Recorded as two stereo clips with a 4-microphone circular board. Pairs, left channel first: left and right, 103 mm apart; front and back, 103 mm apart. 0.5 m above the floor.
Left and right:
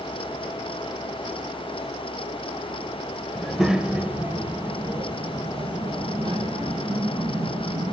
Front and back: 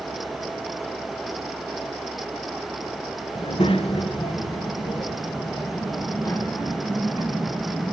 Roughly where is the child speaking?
Ahead.